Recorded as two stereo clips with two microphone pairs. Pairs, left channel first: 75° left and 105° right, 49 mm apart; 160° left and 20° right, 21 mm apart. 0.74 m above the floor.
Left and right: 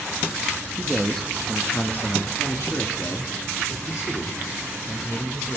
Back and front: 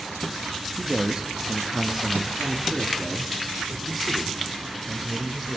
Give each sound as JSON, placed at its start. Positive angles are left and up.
{"t": 0.8, "sound": "a man speaking", "azimuth_deg": -25, "distance_m": 0.8}